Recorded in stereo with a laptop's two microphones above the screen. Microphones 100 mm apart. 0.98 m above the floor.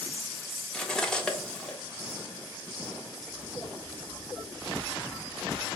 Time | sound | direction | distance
0.7 | cutlery clinking | 10° left (ahead or behind) | 0.5 m